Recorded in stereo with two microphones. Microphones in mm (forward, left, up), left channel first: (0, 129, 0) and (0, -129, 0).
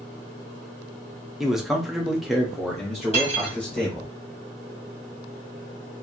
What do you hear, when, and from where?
1.4 s a man speaking: centre (ahead or behind), 0.7 m
3.1 s cutlery clinking: 25° left (ahead or behind), 1.2 m